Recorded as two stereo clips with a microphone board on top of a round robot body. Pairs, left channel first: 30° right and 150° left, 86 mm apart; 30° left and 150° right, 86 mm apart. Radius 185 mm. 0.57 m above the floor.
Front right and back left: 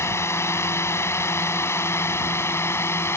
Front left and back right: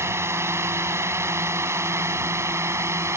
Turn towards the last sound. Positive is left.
turn(degrees=-90)